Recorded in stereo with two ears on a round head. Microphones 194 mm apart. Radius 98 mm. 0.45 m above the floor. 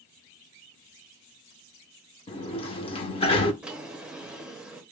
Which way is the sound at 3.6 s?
5° right (ahead or behind).